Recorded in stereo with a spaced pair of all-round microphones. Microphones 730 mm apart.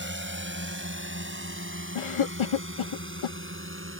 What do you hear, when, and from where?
0.0 s a drone: 15° right (ahead or behind)
1.9 s a cough: 45° left (ahead or behind)